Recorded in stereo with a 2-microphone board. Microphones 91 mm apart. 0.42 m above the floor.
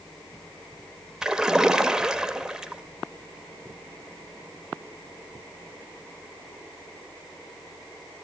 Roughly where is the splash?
Centre.